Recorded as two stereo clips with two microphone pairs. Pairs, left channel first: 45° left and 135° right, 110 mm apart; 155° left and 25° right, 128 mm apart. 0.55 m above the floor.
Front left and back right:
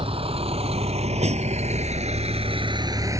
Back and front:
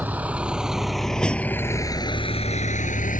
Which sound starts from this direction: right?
A vehicle, at 0.0 s.